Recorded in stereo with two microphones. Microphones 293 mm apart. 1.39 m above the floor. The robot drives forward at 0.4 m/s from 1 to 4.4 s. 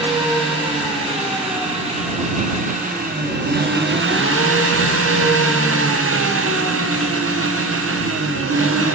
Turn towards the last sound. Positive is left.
turn(degrees=-50)  # may be behind; listen again after turning